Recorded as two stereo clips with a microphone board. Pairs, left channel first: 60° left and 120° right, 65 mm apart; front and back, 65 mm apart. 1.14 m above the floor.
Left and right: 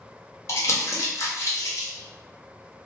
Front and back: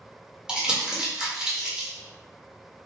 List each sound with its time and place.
0.5 s crumpling: 105° left, 1.0 m